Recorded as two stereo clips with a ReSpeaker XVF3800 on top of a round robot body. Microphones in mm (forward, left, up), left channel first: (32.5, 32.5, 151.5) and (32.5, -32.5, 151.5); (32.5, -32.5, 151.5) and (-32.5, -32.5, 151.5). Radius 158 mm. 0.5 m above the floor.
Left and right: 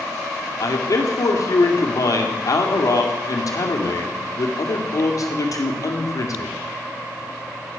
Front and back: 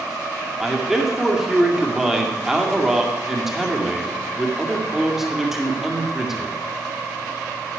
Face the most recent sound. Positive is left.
turn(degrees=95)